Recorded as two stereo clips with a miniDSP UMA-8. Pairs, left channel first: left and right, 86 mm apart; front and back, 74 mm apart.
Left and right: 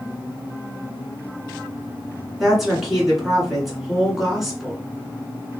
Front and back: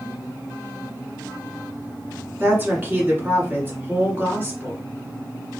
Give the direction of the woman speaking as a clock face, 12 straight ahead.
6 o'clock.